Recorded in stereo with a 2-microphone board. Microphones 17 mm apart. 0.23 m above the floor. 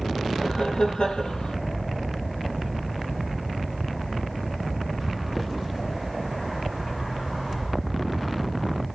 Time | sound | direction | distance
0.4 | laughter | 75° left (ahead or behind) | 5.5 m